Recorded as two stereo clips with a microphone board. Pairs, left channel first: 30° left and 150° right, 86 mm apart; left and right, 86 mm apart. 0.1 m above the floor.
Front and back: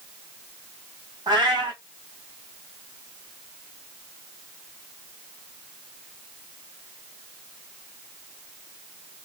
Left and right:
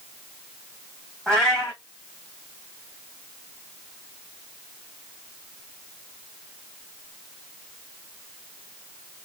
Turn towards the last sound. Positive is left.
turn(degrees=175)